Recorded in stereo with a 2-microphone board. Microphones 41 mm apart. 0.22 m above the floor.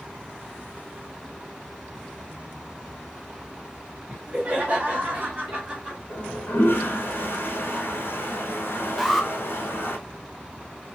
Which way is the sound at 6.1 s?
65° left (ahead or behind).